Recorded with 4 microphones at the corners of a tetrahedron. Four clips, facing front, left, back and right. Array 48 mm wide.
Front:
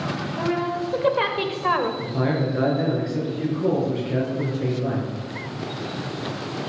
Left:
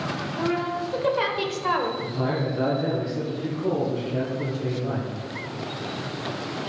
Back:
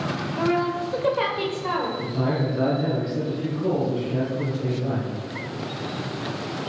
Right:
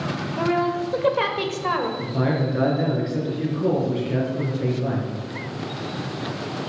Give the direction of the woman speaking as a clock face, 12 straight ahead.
4 o'clock.